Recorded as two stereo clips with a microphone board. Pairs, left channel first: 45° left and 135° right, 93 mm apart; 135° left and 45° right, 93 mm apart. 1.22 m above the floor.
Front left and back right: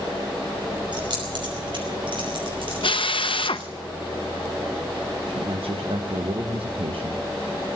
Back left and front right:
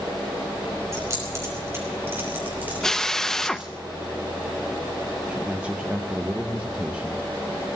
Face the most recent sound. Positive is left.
turn(degrees=-120)